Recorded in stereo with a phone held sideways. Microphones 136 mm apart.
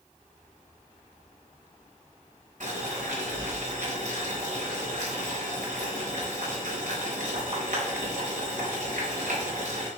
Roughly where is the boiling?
Right.